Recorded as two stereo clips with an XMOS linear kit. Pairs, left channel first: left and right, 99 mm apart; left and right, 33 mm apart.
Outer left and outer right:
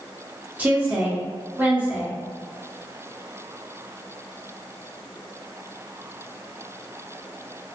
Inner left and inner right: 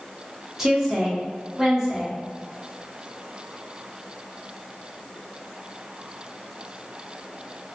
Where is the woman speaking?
15° right (ahead or behind), 1.0 m.